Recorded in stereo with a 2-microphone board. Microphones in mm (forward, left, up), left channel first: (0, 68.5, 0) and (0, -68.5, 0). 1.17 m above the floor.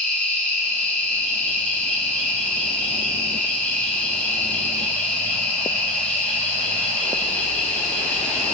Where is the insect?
10° left (ahead or behind), 2 m.